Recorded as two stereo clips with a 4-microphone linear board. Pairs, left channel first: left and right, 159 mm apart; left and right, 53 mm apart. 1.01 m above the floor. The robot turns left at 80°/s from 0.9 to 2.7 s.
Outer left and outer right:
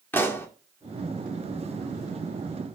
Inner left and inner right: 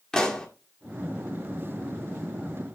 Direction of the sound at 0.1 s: 15° left (ahead or behind).